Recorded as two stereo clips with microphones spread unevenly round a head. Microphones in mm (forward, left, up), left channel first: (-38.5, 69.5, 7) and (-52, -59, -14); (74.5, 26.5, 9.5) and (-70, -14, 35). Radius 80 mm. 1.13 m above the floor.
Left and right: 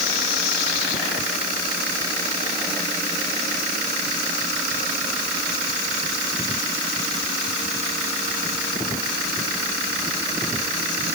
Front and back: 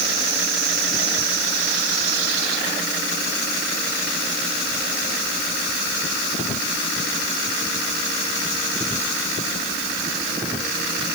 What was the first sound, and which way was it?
Only background noise.